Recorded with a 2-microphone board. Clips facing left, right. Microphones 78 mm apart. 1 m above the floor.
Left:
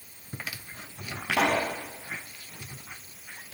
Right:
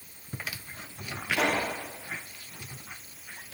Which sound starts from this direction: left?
A pop, at 1.3 s.